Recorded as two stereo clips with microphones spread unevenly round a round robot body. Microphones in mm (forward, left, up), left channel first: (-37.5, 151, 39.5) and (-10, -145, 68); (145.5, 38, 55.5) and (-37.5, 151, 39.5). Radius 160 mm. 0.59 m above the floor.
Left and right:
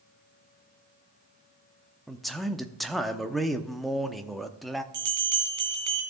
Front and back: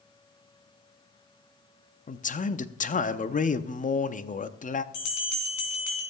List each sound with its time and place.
2.1 s a man speaking: 10° left, 0.7 m
4.9 s a bell: 45° right, 2.5 m